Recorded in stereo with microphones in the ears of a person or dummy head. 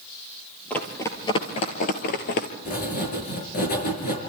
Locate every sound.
0.7 s running footsteps: 5° left (ahead or behind), 2.0 m; by 2.5 s 50° left (ahead or behind), 2.0 m
2.6 s writing: 45° left (ahead or behind), 5 m